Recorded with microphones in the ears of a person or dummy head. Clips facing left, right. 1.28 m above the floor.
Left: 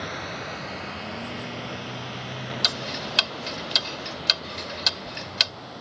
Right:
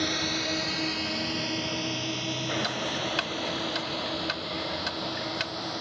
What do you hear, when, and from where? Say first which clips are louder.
0.0 s a drone: right 4 dB; 70° right (ahead or behind); by 5.8 s 65° right (ahead or behind)
2.6 s ticking: right 2 dB; 50° left (ahead or behind)